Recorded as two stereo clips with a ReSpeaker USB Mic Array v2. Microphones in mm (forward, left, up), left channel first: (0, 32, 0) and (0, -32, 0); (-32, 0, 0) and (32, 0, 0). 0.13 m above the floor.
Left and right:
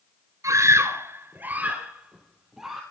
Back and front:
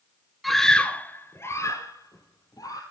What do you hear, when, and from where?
0.4 s a scream: 90° right, 1.7 m; by 2.8 s 175° right, 3 m